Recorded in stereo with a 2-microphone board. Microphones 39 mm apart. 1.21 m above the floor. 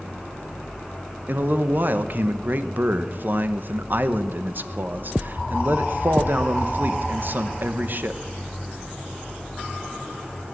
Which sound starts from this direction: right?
A man speaking, at 1.3 s.